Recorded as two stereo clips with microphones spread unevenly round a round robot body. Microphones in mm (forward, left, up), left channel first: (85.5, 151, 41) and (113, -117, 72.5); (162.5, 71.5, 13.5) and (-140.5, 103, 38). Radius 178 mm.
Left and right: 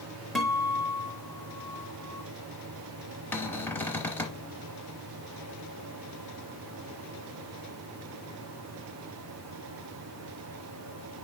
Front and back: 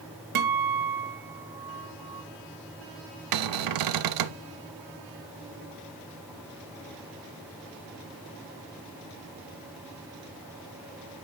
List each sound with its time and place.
0.3 s a guitar: straight behind, 1.1 m
3.3 s a cupboard door: 175° left, 0.6 m